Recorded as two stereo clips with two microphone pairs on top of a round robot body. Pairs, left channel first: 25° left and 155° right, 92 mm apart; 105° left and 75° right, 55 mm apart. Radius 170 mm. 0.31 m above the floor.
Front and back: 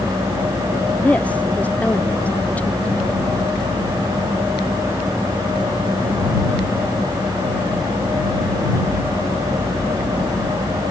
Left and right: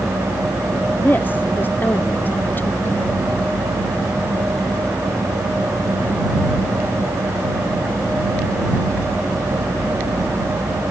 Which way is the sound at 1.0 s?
85° left.